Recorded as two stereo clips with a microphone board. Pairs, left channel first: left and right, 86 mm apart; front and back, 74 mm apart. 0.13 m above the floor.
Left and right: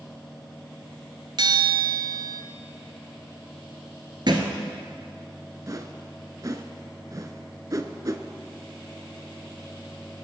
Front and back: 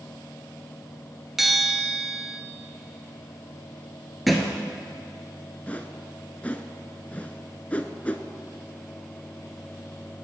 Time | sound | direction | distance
1.4 | a bell | 95° right | 0.7 m
4.3 | a thud | 90° right | 1.1 m
5.7 | a whoosh | 65° right | 0.5 m